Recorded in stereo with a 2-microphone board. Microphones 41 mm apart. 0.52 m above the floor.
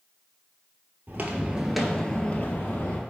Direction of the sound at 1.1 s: 50° right (ahead or behind).